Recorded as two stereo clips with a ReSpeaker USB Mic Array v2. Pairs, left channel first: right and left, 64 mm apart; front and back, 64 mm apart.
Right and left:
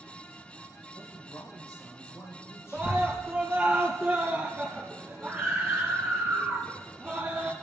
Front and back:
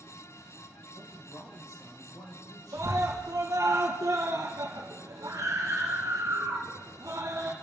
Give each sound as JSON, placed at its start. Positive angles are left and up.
{"t": 0.9, "sound": "a man speaking", "azimuth_deg": -35, "distance_m": 7.5}
{"t": 2.7, "sound": "a scream", "azimuth_deg": 170, "distance_m": 3.5}